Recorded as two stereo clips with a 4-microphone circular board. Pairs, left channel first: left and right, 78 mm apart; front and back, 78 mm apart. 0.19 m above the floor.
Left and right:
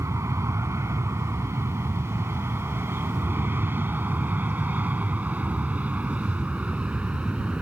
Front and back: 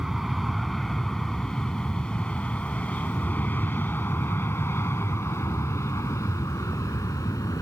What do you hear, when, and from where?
0.0 s an aircraft: 95° right; by 7.6 s 20° right